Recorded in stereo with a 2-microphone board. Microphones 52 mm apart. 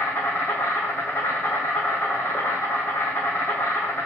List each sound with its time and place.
0.0 s an insect: 55° left (ahead or behind), 2.5 m